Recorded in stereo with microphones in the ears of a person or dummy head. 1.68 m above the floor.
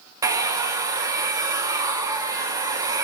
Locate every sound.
0.2 s a hair dryer: 20° right (ahead or behind), 1.3 m